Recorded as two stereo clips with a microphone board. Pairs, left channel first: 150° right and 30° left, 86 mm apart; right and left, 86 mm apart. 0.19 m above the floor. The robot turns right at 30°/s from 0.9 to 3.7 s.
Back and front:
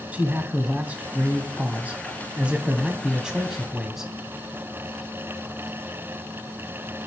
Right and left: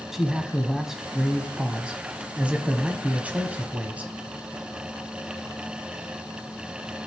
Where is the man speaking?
20° left, 1.0 m; by 4.1 s 100° left, 1.0 m.